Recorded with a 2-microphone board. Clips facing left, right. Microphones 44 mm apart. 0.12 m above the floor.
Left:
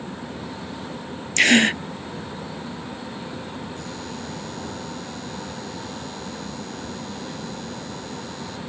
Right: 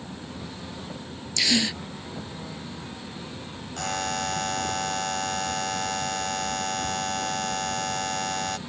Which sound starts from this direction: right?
A buzzer, at 3.8 s.